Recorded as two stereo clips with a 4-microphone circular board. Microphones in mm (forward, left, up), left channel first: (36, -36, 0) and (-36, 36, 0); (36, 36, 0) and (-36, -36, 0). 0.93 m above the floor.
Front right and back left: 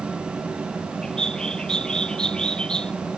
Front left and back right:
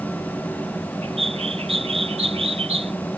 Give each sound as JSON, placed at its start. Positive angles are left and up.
{"t": 1.0, "sound": "a bird", "azimuth_deg": -125}